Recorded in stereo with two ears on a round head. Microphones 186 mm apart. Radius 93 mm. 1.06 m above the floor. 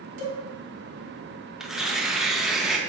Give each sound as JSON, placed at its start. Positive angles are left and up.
{"t": 0.2, "sound": "a cowbell", "side_deg": -65, "distance_m": 4.0}
{"t": 1.6, "sound": "tearing paper", "side_deg": -5, "distance_m": 1.1}